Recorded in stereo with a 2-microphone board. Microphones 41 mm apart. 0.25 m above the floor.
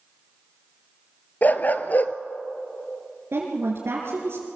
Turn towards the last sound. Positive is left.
turn(degrees=-70)  # may be behind; listen again after turning